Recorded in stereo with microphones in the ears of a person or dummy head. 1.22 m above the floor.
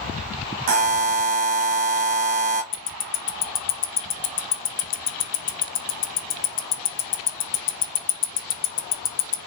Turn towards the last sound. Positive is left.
turn(degrees=40)  # may be behind; listen again after turning